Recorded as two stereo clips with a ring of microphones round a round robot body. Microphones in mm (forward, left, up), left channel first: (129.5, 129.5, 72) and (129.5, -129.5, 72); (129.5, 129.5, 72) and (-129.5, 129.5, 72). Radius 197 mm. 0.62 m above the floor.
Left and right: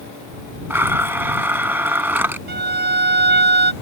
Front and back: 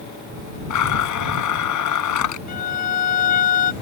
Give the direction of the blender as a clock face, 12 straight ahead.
12 o'clock.